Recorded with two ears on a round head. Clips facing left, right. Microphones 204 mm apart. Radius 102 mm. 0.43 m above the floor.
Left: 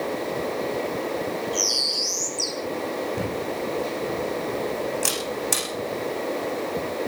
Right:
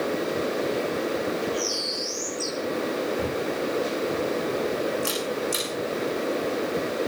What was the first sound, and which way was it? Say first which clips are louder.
A bird: right 1 dB; 65° left (ahead or behind).